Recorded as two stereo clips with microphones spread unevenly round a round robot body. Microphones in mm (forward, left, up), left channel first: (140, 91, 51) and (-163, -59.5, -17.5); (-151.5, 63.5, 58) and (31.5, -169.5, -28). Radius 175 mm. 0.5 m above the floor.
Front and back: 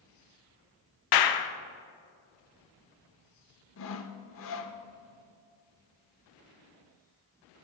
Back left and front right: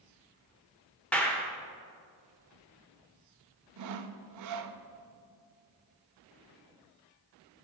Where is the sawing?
30° right, 0.5 m.